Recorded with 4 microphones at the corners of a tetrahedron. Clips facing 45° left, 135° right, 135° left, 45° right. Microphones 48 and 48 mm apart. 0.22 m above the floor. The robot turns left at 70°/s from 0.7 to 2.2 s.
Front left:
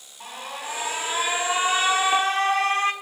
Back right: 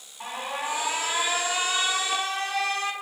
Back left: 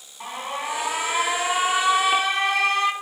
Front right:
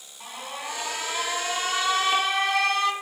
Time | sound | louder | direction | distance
0.2 | an alarm | back right 3 dB, back left 6 dB | 160° left | 0.8 m